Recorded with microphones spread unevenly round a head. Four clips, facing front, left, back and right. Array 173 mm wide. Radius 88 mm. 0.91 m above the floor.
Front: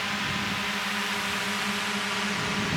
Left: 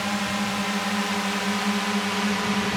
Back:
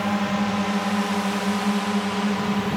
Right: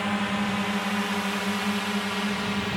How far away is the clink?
No clink in this recording.